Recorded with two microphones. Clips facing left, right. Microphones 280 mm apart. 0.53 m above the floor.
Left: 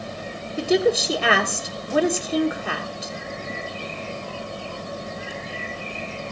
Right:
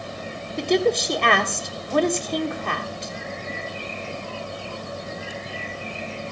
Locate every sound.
0.6 s a woman speaking: 5° left (ahead or behind), 1.4 m